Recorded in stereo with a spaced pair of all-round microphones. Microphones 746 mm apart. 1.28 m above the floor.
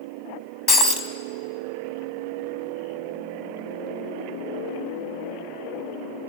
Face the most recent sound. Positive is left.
turn(degrees=30)  # may be behind; listen again after turning